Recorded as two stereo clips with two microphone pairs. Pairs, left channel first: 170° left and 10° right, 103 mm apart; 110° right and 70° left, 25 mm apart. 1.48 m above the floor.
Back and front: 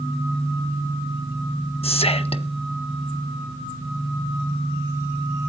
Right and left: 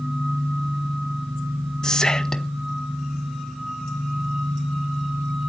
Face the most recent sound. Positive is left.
turn(degrees=-175)